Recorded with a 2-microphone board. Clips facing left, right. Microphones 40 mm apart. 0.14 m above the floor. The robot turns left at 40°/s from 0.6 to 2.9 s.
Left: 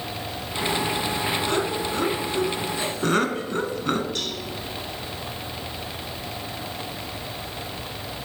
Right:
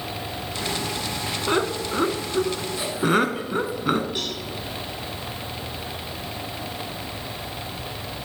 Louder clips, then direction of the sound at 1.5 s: Right 1 dB; 25° right (ahead or behind).